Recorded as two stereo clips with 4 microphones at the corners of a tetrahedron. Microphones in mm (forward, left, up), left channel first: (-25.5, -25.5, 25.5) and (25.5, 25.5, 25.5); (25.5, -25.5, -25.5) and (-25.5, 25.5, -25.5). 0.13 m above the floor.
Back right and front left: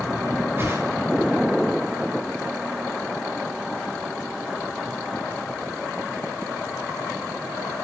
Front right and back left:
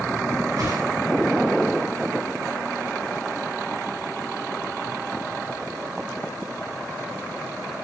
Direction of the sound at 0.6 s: 100° left.